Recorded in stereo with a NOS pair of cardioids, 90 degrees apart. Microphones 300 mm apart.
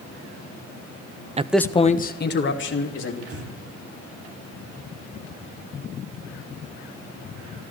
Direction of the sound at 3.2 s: 50° right.